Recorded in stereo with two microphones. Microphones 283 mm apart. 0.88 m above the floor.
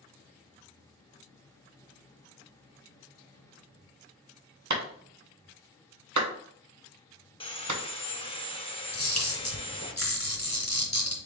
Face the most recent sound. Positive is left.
turn(degrees=65)  # may be behind; listen again after turning